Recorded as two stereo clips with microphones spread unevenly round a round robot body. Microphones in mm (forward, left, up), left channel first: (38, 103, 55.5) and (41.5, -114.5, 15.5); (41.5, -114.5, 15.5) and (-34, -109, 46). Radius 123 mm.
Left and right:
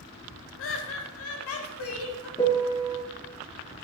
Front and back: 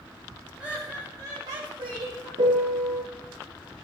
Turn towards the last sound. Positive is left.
turn(degrees=165)